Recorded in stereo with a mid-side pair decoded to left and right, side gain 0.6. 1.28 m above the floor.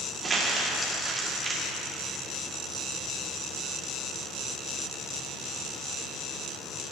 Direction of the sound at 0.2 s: 25° right.